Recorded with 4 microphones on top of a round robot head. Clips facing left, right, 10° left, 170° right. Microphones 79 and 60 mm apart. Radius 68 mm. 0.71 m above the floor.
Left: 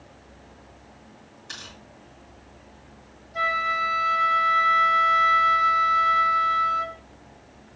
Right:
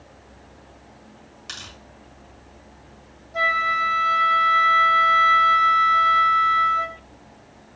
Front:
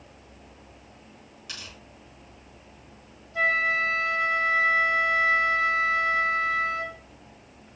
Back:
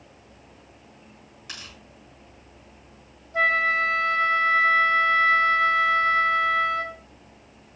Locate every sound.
1.5 s tearing paper: 105° right, 4 m
3.3 s a flute: 135° right, 1.6 m